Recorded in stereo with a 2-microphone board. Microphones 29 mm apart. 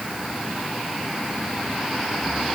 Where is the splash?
I don't hear a splash.